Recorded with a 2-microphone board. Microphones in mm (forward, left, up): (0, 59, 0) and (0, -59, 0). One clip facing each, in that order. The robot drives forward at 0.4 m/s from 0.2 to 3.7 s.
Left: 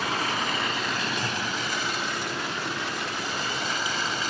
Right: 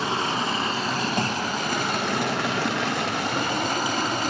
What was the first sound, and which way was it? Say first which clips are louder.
Running water: right 3 dB; 30° right (ahead or behind).